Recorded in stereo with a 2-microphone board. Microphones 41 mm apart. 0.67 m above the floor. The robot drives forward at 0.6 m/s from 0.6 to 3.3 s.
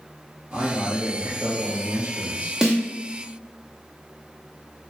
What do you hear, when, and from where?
0.5 s a man speaking: 25° right (ahead or behind), 1.6 m; by 2.5 s 35° right (ahead or behind), 1.1 m
2.6 s a snare drum: 10° right (ahead or behind), 0.9 m; by 2.8 s 15° right (ahead or behind), 0.8 m